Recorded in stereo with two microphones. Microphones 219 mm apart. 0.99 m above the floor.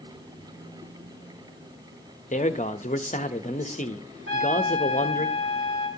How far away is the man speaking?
About 0.8 m.